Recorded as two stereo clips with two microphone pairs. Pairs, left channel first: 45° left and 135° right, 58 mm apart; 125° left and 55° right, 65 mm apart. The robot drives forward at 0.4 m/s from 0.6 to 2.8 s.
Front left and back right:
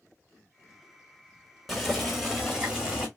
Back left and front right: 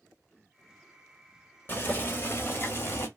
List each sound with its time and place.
1.7 s boiling: 135° left, 1.4 m; by 3.1 s 150° left, 1.6 m